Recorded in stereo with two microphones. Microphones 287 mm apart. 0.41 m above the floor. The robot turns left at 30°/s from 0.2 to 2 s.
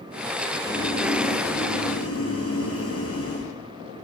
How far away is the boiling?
About 8.5 m.